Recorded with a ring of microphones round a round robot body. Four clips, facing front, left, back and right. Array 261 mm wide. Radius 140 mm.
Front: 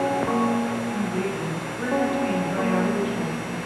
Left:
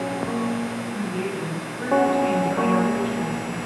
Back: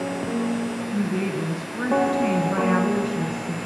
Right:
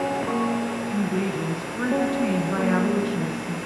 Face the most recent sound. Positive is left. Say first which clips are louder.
# right 2 dB, back 1 dB
turn(degrees=-140)